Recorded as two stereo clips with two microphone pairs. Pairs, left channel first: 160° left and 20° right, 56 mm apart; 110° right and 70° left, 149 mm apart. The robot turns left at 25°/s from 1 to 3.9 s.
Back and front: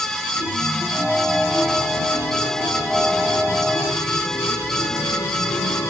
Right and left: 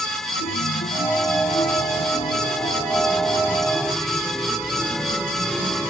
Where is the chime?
130° right; by 5.9 s 160° left.